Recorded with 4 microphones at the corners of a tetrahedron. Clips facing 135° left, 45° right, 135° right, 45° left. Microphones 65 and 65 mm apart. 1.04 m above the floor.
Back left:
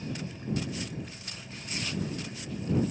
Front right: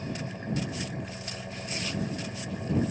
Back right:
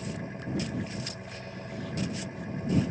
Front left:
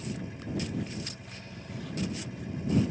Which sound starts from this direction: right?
An engine running, at 0.0 s.